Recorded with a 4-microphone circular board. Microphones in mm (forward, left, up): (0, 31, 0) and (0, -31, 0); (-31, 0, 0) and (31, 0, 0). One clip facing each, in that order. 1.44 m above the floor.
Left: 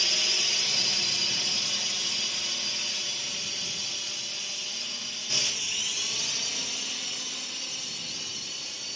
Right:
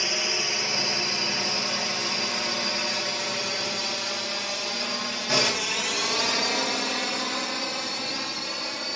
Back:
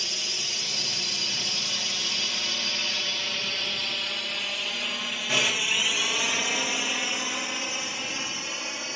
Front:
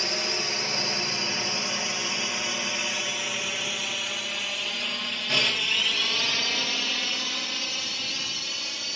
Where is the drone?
35° right; by 8.9 s 115° right.